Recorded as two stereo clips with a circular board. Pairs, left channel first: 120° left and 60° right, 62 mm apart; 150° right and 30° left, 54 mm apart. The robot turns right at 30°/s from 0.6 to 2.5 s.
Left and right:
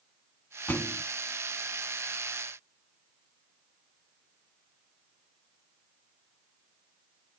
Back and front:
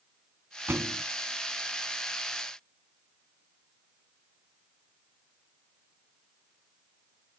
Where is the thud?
65° left, 1.1 m; by 1.0 s 75° left, 1.1 m.